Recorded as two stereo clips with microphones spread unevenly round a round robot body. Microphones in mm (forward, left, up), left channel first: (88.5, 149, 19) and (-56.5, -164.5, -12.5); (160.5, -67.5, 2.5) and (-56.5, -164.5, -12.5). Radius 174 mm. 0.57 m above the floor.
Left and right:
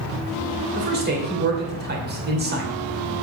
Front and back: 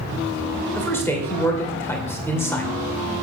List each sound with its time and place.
0.8 s a man speaking: 60° right, 2.5 m